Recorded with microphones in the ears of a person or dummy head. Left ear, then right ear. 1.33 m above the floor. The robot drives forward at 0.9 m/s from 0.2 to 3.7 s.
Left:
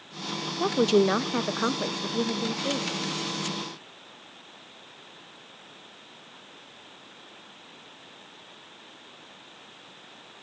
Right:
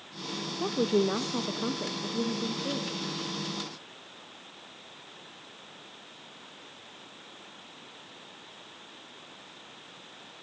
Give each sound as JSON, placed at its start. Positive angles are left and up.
{"t": 0.6, "sound": "a woman speaking", "side_deg": 75, "distance_m": 1.0}